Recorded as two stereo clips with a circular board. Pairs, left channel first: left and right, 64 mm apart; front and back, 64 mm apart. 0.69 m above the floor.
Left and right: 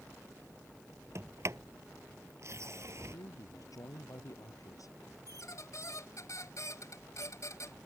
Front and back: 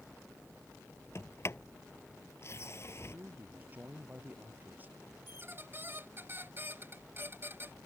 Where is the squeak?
125° left.